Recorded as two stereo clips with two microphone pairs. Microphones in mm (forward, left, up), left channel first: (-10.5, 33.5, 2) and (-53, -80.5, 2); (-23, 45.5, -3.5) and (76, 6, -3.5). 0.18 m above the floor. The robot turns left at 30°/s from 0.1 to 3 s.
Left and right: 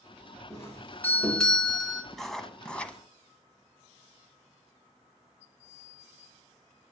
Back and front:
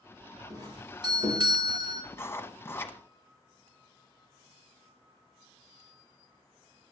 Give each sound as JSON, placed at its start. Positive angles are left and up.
{"t": 0.5, "sound": "a doorbell", "azimuth_deg": 15, "distance_m": 3.0}
{"t": 2.1, "sound": "writing", "azimuth_deg": 160, "distance_m": 1.1}